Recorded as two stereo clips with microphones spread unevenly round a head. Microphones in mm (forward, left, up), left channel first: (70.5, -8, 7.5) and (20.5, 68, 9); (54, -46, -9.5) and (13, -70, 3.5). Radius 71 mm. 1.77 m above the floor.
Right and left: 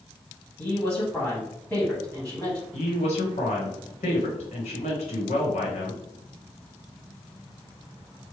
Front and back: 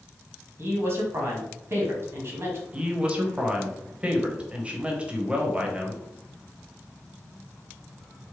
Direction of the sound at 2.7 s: 85° right.